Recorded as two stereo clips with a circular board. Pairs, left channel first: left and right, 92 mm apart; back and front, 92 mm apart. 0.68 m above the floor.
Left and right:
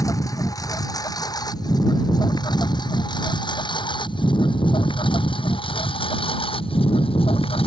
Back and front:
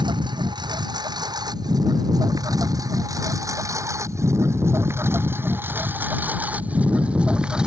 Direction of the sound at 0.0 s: 35° left.